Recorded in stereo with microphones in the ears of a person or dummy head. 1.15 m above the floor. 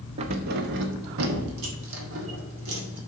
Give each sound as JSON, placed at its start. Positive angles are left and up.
{"t": 0.2, "sound": "keys jangling", "side_deg": -30, "distance_m": 0.6}